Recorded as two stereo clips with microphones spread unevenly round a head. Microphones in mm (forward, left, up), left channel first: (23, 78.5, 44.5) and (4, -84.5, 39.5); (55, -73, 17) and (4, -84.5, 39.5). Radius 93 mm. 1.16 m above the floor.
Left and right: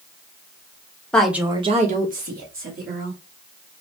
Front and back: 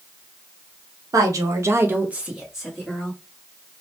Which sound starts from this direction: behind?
A woman speaking, at 1.1 s.